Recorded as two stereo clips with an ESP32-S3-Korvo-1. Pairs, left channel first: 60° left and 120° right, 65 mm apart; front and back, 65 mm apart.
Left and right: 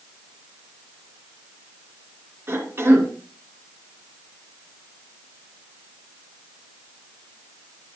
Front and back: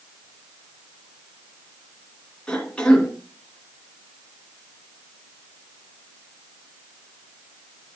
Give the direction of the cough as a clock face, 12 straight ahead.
2 o'clock.